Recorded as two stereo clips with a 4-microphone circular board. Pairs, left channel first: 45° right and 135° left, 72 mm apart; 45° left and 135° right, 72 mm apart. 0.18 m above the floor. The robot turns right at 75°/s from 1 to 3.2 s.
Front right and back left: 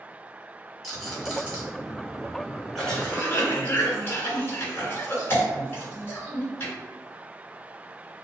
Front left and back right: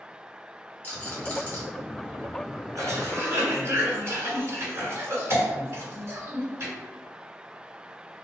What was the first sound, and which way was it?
A rattle, 40° left.